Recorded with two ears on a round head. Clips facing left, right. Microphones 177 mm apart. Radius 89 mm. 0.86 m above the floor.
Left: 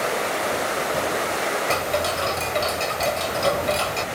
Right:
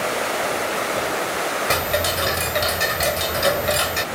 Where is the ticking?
15° right (ahead or behind).